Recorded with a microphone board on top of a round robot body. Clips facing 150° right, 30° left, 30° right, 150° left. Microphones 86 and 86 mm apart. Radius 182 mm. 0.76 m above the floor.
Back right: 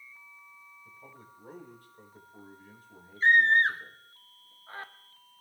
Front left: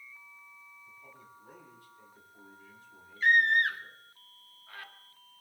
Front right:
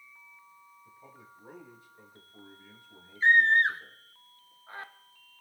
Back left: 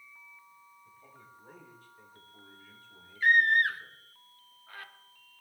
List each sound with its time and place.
0.8 s a man speaking: 105° right, 4.5 m
3.2 s a scream: 95° right, 1.2 m